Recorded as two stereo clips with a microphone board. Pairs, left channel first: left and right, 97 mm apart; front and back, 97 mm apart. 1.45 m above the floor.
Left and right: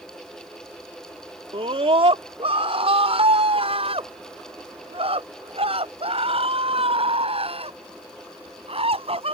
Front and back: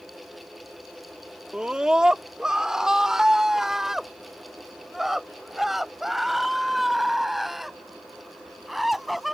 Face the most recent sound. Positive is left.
turn(degrees=-90)